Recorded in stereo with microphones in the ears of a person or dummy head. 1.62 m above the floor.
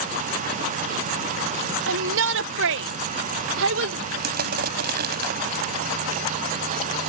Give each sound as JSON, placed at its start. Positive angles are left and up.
{"t": 1.9, "sound": "a shout", "side_deg": -70}
{"t": 4.2, "sound": "crushing", "side_deg": -55}